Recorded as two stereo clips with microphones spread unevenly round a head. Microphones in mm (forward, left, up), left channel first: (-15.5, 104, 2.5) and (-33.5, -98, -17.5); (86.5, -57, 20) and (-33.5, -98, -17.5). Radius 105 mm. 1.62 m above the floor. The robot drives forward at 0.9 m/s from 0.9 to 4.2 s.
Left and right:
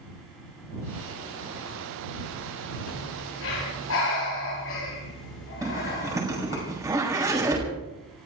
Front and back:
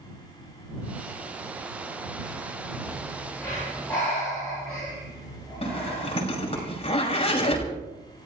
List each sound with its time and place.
2.9 s breathing: 95° left, 10 m; by 6.6 s 100° left, 10 m
5.6 s a zipper: 20° right, 5.5 m